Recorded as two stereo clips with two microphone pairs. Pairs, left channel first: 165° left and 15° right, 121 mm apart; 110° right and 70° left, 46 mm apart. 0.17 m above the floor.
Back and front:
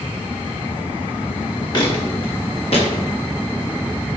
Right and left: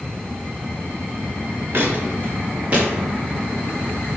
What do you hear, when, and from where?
1.7 s footsteps: 115° left, 3.5 m; by 2.9 s 130° left, 3.5 m